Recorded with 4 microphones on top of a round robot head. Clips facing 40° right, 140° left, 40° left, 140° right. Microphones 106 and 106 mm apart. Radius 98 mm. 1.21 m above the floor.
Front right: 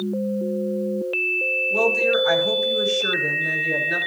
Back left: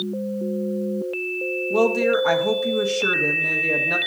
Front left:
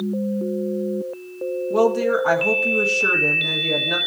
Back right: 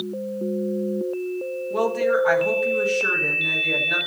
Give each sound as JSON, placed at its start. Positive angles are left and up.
{"t": 1.7, "sound": "a woman speaking", "azimuth_deg": 100, "distance_m": 1.4}